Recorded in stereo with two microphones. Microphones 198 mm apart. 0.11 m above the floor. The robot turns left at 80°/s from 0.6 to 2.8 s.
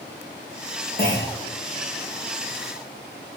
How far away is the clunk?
About 4 m.